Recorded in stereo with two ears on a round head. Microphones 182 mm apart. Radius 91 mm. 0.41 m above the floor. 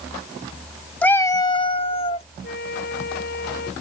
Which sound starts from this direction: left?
A flute, at 2.4 s.